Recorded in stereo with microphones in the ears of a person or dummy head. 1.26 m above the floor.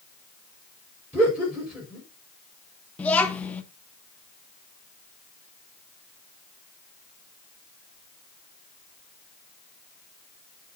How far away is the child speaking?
About 0.9 m.